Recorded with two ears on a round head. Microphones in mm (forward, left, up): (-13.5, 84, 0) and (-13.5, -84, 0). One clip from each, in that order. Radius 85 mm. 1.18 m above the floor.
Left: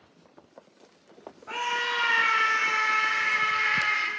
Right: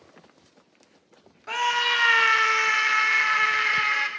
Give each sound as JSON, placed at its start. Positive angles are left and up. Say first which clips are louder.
{"t": 1.5, "sound": "a scream", "louder": "right 5 dB", "side_deg": -70, "distance_m": 1.1}